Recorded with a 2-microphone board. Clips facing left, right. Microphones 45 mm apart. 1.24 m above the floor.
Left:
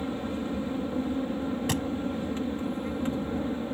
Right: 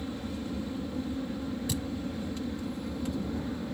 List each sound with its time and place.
0.0 s an aircraft: 35° left (ahead or behind)
1.7 s a thud: 65° left (ahead or behind)